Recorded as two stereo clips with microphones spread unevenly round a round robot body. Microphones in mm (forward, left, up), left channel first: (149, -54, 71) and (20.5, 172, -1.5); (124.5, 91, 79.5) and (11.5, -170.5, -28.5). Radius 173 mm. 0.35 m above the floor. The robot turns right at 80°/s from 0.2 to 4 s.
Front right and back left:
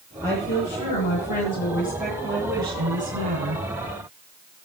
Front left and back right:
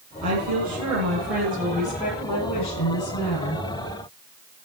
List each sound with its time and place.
0.2 s a woman speaking: 145° right, 8.5 m; by 3.6 s 130° left, 8.5 m